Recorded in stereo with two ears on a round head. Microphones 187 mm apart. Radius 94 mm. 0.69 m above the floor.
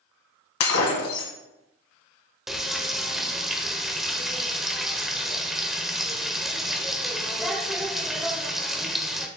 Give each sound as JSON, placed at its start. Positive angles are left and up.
{"t": 0.6, "sound": "breaking glass", "side_deg": 75, "distance_m": 1.8}
{"t": 2.5, "sound": "frying", "side_deg": 0, "distance_m": 1.0}